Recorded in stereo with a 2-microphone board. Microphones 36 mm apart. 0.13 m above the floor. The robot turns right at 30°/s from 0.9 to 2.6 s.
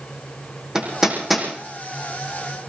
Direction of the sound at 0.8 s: 20° right (ahead or behind).